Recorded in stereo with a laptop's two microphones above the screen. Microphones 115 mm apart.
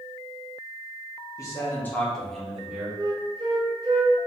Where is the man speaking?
30° left (ahead or behind), 1.2 m; by 2.9 s 10° right (ahead or behind), 1.3 m.